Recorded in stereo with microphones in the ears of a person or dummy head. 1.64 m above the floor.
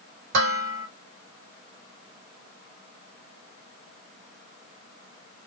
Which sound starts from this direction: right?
Dishes clattering, at 0.3 s.